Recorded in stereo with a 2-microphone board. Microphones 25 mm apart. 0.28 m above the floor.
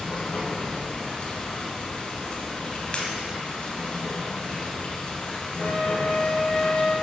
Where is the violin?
55° left (ahead or behind), 2.0 m.